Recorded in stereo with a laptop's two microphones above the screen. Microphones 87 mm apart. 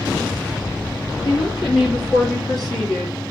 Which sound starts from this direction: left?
A woman speaking, at 1.2 s.